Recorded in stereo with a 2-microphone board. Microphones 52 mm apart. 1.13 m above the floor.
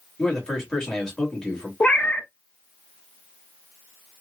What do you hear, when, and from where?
0.2 s a man speaking: 15° left (ahead or behind), 1.8 m
1.8 s a cat meowing: 20° left (ahead or behind), 0.6 m